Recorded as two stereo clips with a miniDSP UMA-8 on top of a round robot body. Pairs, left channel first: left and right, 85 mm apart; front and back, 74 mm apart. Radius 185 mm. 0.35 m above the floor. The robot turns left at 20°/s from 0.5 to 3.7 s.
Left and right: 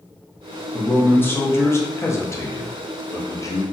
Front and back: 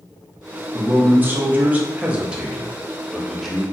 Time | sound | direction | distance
0.7 | a man speaking | 145° left | 0.9 m